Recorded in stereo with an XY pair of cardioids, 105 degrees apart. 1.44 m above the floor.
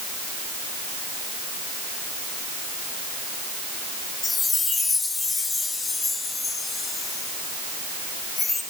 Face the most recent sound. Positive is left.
turn(degrees=30)